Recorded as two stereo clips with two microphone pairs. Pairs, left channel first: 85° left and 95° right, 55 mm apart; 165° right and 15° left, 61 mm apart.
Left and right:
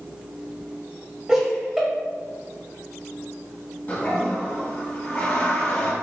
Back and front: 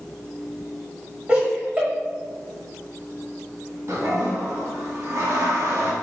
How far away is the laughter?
About 1.5 m.